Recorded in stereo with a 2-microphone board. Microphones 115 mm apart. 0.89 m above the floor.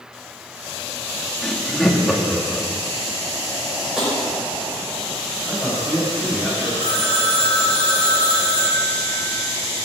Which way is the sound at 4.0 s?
5° right (ahead or behind).